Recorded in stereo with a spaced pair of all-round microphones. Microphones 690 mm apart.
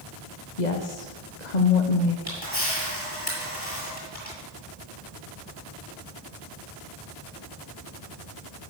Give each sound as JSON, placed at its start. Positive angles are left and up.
{"t": 0.6, "sound": "a woman speaking", "side_deg": 80, "distance_m": 1.3}
{"t": 2.3, "sound": "a camera shutter", "side_deg": 55, "distance_m": 7.5}